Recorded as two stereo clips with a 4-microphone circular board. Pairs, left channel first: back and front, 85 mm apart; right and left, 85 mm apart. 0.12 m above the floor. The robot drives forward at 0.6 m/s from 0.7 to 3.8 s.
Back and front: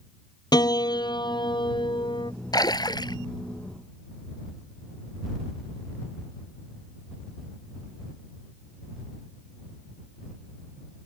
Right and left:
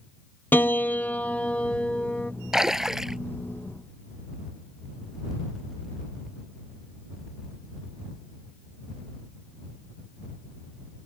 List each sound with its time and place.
0.5 s a piano: 150° right; by 2.3 s 165° right
2.5 s a splash: 175° left